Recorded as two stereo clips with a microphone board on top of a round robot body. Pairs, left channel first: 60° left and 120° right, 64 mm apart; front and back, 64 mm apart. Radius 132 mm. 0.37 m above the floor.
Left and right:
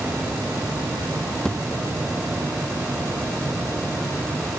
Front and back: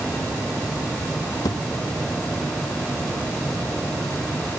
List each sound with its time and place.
1.4 s a thud: 20° right